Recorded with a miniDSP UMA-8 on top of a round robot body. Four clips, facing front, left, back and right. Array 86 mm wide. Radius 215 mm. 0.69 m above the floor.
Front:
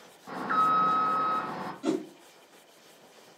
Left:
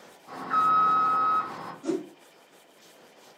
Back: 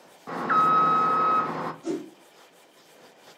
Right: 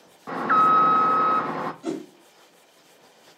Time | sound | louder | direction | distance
0.3 | an alarm | right 5 dB, back 4 dB | 110° right | 0.5 m
1.8 | a whoosh | left 1 dB, front 4 dB | 25° right | 1.3 m